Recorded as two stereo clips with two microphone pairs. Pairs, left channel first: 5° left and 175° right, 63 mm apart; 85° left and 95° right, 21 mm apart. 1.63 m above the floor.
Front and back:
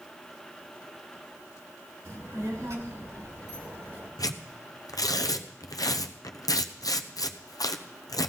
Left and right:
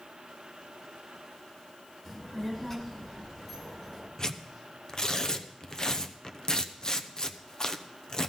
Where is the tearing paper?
20° left, 0.8 m.